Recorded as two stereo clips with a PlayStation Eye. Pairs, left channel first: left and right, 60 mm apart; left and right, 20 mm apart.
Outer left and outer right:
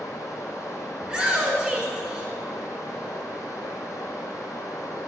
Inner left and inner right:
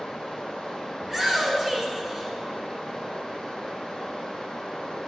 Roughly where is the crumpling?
No crumpling in this recording.